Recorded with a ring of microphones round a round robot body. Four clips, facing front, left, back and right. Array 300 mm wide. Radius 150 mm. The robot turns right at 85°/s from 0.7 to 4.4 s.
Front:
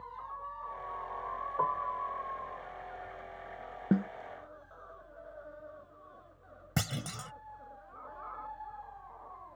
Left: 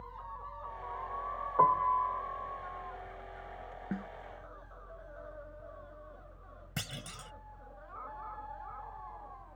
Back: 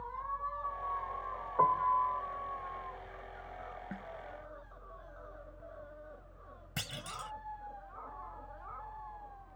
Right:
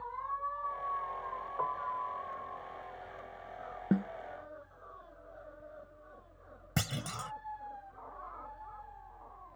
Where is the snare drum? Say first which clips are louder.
Right 9 dB, front 16 dB; 30° right; by 4.1 s 15° right.